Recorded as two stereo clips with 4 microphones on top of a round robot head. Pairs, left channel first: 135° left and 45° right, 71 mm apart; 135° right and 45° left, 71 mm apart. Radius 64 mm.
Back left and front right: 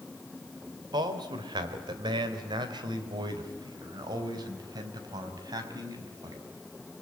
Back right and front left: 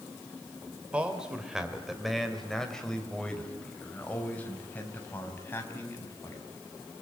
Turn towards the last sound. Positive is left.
turn(degrees=-80)